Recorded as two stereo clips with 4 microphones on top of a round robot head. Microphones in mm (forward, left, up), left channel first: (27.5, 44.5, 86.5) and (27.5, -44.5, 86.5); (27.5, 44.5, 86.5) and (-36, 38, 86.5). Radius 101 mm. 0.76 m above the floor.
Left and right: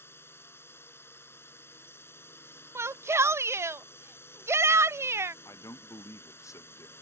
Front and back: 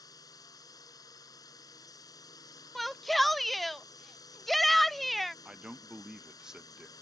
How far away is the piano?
No piano in this recording.